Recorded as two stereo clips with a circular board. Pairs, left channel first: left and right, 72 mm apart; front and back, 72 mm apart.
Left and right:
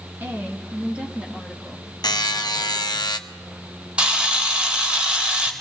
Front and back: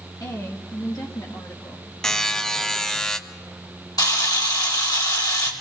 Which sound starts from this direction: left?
A buzzer, at 2.0 s.